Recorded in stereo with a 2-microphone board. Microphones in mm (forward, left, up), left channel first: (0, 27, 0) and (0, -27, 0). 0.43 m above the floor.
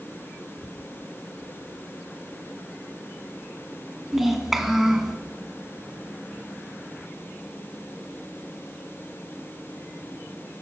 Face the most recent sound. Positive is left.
turn(degrees=-5)  # may be behind; listen again after turning